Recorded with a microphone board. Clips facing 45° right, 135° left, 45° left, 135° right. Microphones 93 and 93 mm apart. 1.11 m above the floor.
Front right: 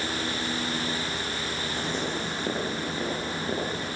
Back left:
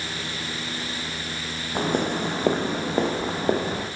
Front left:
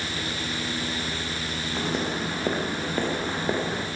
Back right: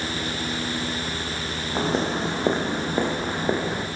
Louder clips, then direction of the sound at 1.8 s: Back left 9 dB, back right 5 dB; 170° left.